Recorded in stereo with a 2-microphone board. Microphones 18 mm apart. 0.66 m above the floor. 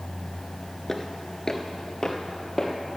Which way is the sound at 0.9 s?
20° left (ahead or behind).